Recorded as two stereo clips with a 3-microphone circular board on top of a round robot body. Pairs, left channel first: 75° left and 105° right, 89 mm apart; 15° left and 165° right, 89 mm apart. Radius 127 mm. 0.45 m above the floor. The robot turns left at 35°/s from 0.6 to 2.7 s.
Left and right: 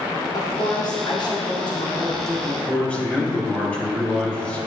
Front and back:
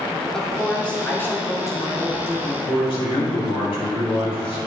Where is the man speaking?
Straight ahead, 3 m.